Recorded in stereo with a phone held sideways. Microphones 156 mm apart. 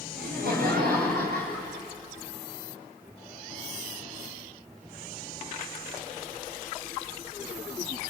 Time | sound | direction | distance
0.1 | laughter | 85° right | 4.5 m